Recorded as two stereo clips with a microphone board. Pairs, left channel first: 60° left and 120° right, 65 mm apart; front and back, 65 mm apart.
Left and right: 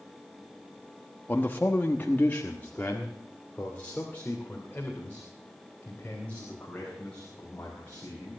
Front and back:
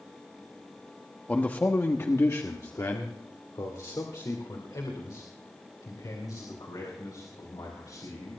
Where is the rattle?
I don't hear a rattle.